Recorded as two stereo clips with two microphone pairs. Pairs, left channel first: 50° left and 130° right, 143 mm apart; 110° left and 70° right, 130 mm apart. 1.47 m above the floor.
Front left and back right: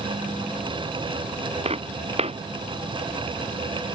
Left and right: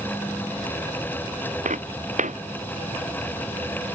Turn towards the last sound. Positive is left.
turn(degrees=-85)